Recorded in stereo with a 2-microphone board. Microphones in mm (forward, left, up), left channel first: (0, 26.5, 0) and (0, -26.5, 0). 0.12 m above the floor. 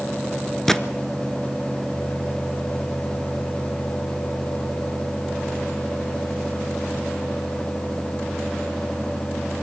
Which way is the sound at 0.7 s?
10° left (ahead or behind).